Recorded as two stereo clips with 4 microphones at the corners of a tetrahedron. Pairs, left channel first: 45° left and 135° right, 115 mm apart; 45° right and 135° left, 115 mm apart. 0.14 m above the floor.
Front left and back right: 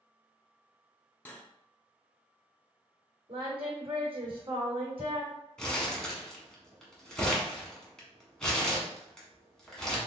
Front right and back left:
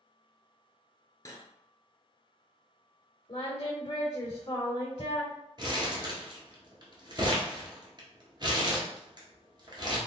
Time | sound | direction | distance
1.2 | cutlery clinking | 20° right | 0.8 m
3.3 | singing | 100° right | 1.9 m
5.6 | crumpling | 125° left | 1.3 m